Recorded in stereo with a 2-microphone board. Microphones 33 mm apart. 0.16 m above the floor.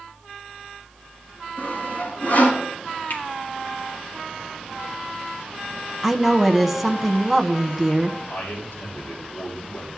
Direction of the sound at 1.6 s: 50° left (ahead or behind).